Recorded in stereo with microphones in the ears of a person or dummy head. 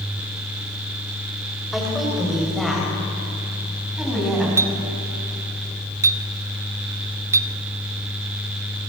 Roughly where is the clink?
Centre.